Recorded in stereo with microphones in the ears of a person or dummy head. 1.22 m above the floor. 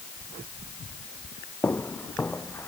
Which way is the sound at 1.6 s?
10° left (ahead or behind).